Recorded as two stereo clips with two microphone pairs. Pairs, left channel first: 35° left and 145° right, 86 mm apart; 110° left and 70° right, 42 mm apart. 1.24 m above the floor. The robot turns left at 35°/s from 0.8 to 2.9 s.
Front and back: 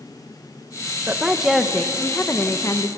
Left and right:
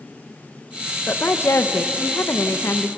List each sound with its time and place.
1.1 s a woman speaking: 145° left, 1.2 m; by 2.9 s 80° left, 1.2 m